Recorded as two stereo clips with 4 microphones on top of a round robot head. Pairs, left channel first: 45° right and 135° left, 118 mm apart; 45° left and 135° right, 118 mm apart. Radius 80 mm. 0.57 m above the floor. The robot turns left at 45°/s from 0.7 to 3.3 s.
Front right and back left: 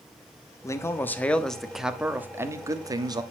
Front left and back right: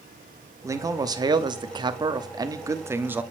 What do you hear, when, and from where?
0.6 s a man speaking: 90° right, 1.2 m; by 3.2 s 155° left, 1.2 m